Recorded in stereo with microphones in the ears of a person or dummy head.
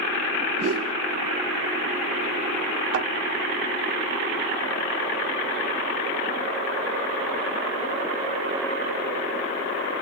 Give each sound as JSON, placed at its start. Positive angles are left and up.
{"t": 0.6, "sound": "a whoosh", "side_deg": -80, "distance_m": 3.0}
{"t": 2.9, "sound": "a thud", "side_deg": -75, "distance_m": 2.5}